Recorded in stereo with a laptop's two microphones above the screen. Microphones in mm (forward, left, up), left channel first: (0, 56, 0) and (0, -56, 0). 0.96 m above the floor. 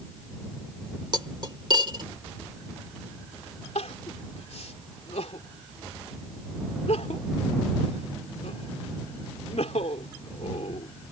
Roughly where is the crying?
Left.